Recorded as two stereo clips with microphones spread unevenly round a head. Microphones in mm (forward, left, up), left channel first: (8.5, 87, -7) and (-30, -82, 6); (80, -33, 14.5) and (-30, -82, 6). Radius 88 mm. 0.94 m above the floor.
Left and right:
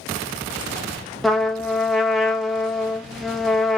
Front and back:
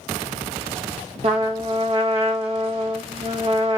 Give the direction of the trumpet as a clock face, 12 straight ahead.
6 o'clock.